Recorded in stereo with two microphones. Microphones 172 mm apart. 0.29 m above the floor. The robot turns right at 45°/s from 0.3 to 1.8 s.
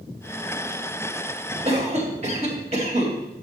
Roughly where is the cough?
Right.